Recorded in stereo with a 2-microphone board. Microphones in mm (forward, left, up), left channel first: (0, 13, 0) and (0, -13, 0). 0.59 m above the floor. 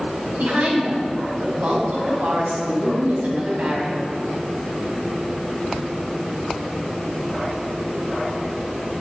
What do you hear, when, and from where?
0.4 s a woman speaking: 65° right (ahead or behind), 4.5 m